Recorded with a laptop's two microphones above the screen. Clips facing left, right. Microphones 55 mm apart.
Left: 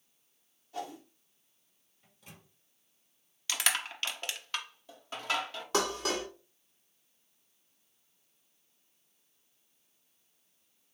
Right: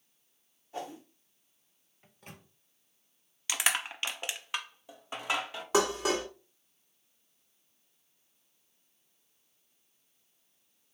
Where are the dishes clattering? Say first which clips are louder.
Right 4 dB; 15° right (ahead or behind), 1.4 m.